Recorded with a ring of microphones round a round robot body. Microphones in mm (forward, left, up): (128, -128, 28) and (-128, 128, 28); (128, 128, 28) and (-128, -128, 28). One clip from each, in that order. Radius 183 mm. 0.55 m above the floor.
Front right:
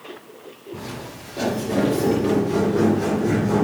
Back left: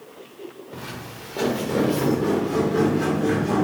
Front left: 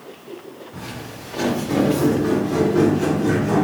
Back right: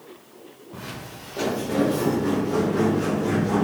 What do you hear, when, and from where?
0.7 s footsteps: 140° left, 3 m; by 3.6 s 120° left, 4.5 m